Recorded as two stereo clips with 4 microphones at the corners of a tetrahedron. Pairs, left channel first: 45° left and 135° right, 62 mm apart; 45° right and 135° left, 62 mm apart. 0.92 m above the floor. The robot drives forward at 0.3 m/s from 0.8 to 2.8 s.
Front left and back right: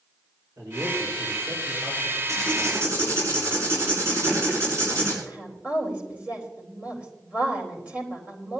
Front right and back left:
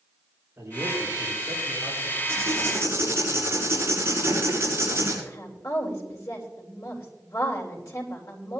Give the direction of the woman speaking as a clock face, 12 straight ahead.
2 o'clock.